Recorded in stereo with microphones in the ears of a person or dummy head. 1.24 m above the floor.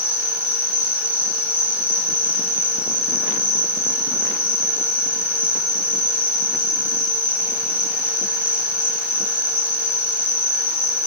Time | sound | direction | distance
0.0 | an insect | 10° left (ahead or behind) | 2 m